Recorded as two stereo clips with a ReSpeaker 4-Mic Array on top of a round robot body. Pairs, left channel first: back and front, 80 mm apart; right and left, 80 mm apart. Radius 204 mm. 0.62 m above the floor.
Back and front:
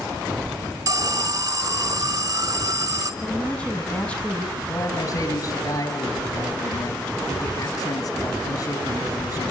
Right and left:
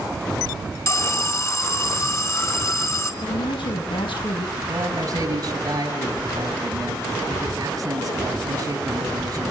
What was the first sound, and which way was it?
An alarm, 35° right.